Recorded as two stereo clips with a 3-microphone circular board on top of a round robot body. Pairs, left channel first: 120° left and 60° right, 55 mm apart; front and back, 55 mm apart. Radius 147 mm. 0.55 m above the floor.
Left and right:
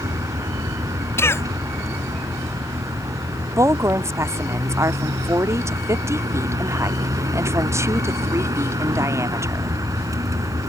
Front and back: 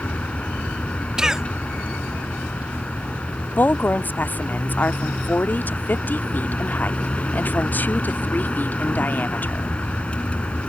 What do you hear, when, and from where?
0.0 s a vehicle: 70° right
1.2 s a cough: 105° left
3.6 s a woman speaking: 50° right